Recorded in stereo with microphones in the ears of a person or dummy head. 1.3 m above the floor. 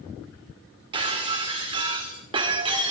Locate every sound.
0.9 s breaking glass: 30° right (ahead or behind), 1.7 m